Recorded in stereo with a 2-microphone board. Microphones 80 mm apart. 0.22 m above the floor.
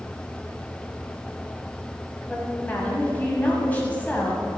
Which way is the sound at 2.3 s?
20° left (ahead or behind).